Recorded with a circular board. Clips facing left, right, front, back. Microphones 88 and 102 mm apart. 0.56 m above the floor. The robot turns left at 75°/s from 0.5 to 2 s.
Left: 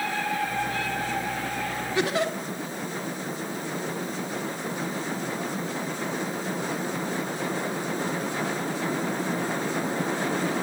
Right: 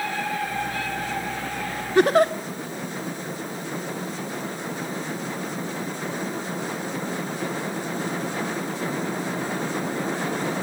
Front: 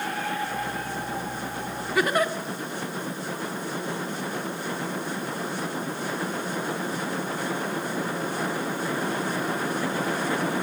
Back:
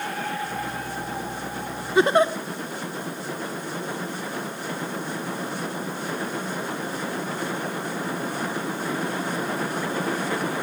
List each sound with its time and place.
1.9 s a giggle: 120° right, 1.1 m